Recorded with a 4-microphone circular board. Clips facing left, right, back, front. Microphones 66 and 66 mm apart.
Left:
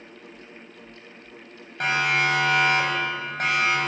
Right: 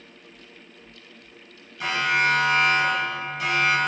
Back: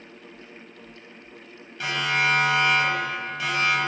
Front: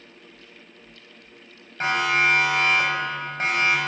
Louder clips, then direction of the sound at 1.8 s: Even, front 3 dB; 55° left.